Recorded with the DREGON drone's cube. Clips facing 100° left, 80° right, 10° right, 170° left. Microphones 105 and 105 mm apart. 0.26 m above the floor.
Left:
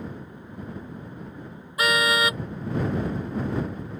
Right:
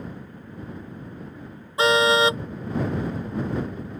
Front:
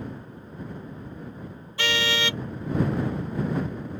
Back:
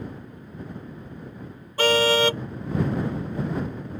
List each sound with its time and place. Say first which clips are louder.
1.8 s a car horn: right 5 dB, back 8 dB; 140° right